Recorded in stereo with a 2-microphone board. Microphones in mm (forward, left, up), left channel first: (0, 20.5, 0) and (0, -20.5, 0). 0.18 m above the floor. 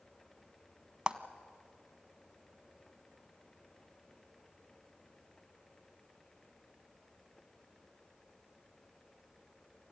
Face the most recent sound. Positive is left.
turn(degrees=-25)  # may be behind; listen again after turning